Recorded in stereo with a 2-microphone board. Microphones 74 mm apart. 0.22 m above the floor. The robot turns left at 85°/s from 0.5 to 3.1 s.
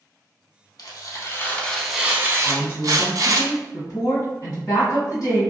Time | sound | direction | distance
0.8 | tearing paper | 90° left | 0.5 m
2.4 | a woman speaking | 140° left | 1.8 m